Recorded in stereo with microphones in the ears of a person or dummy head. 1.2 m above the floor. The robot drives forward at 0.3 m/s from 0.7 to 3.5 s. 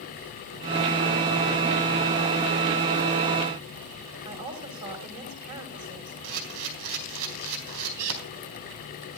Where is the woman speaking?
40° right (ahead or behind), 5 m.